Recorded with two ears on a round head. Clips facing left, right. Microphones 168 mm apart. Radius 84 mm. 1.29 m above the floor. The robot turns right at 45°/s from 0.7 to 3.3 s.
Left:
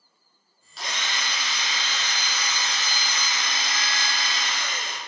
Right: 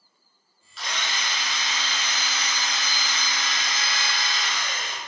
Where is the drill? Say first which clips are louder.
Even; 35° left, 1.5 m; by 5.0 s 150° left, 1.5 m.